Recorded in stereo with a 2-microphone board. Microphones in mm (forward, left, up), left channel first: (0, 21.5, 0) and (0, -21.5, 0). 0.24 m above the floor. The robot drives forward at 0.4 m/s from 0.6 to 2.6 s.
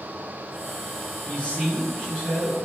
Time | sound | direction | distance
1.2 | a man speaking | 25° left (ahead or behind) | 1.4 m